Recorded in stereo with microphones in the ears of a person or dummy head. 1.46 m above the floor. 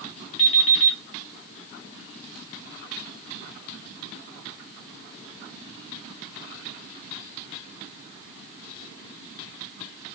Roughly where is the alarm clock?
Left.